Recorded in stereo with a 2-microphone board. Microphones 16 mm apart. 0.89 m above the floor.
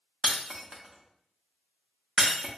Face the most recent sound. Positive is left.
turn(degrees=-65)  # may be behind; listen again after turning